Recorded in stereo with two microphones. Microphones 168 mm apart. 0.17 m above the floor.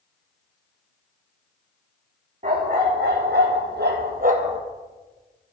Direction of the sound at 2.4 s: 50° right (ahead or behind).